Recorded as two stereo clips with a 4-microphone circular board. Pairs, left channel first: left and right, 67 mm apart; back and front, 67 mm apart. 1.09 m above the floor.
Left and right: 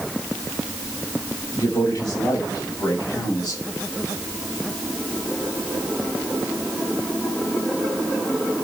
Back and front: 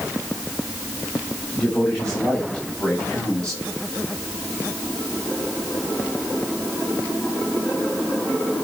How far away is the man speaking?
About 6 m.